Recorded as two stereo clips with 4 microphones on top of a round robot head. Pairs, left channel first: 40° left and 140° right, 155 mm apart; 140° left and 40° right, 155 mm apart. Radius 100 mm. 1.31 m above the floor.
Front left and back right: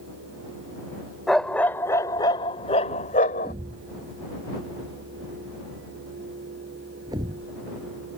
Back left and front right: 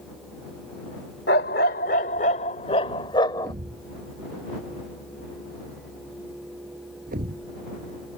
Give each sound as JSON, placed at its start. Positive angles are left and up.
{"t": 1.3, "sound": "a dog barking", "azimuth_deg": 125}
{"t": 3.4, "sound": "a thud", "azimuth_deg": -75}